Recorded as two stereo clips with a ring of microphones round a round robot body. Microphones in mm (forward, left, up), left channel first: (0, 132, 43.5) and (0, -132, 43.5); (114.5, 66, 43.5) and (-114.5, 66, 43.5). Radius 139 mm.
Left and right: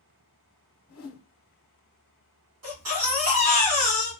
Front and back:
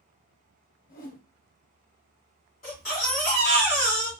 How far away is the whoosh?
About 1.0 m.